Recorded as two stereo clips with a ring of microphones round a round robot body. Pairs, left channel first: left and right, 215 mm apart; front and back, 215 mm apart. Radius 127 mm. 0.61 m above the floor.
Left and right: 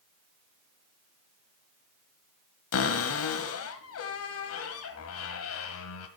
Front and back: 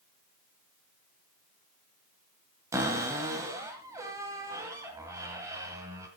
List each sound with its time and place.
2.7 s a cupboard door: 100° left, 1.9 m